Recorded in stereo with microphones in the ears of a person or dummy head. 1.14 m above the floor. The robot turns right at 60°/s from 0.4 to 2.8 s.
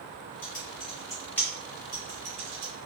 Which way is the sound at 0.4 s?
45° left (ahead or behind).